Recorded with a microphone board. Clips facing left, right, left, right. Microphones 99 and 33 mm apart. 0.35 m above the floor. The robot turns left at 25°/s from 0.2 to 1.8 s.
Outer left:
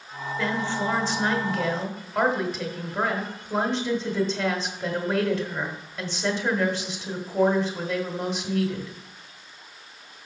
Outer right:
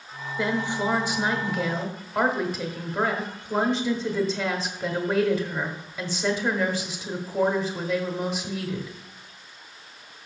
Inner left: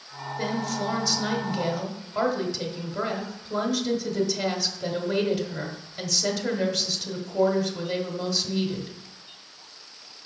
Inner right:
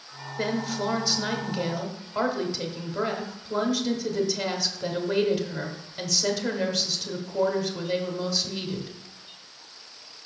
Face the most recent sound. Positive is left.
turn(degrees=-5)  # may be behind; listen again after turning